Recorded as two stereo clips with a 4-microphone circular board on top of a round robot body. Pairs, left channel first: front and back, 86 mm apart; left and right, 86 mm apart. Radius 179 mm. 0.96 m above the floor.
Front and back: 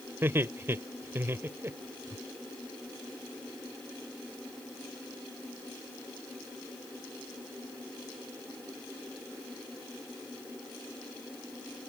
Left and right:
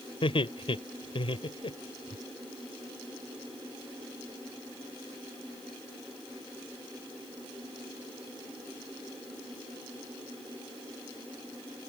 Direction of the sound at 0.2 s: 115° left.